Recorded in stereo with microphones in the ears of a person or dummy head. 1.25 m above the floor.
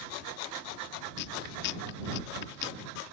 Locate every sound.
1.2 s chewing: 60° left (ahead or behind)